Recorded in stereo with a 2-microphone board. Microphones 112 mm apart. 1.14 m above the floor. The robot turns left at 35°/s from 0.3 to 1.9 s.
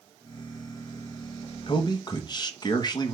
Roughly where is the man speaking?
Left.